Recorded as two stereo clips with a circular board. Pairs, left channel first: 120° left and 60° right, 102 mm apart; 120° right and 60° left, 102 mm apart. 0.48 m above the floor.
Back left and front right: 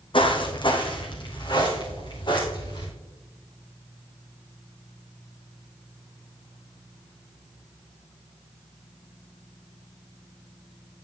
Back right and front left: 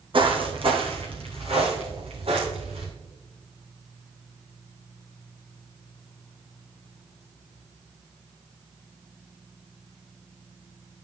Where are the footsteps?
90° left, 1.4 m; by 2.9 s 75° left, 3 m.